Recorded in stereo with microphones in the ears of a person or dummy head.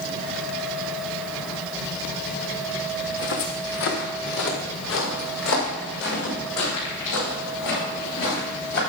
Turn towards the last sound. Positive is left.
turn(degrees=75)  # may be behind; listen again after turning